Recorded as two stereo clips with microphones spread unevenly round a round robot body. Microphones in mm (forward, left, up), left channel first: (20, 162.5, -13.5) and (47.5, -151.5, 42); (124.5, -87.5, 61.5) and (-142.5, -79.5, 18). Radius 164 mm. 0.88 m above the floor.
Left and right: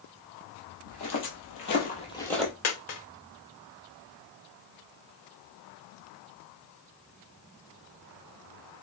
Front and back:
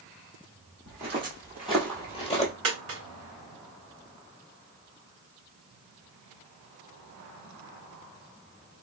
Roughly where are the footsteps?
Left.